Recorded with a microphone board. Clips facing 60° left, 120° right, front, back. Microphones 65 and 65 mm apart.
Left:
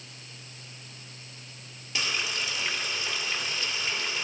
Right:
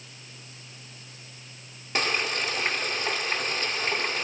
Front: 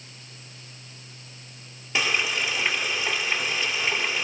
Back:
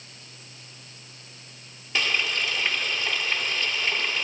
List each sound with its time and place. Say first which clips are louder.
1.9 s frying: right 4 dB, front 1 dB; 75° right, 2 m